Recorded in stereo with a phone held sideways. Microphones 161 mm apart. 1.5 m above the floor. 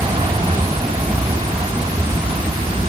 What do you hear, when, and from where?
0.0 s an aircraft: 30° right (ahead or behind)